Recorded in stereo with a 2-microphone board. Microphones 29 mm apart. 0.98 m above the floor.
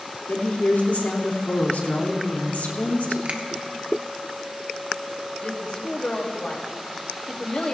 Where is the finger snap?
50° right (ahead or behind), 1.3 m.